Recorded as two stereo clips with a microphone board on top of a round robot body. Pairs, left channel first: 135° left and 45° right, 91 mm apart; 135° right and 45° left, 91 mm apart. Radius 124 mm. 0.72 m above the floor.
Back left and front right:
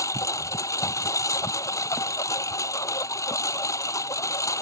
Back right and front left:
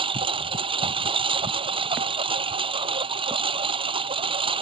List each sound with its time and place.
0.0 s a lawn mower: 75° left